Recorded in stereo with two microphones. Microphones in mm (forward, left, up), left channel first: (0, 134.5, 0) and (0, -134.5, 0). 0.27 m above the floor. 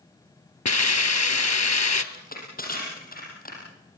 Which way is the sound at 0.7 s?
80° left.